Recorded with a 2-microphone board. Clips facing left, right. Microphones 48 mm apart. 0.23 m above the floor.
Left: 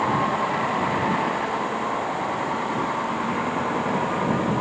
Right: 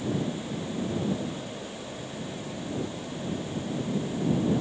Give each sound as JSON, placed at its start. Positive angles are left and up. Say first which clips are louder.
{"t": 0.0, "sound": "a vehicle", "louder": "left 9 dB", "side_deg": 80}